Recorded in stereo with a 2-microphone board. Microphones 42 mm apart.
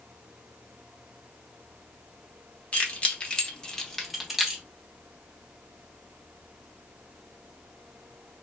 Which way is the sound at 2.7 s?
35° left (ahead or behind).